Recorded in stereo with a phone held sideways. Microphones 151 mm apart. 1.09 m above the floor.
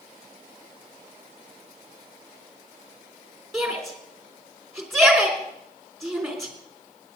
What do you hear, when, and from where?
3.5 s a shout: centre (ahead or behind), 3.5 m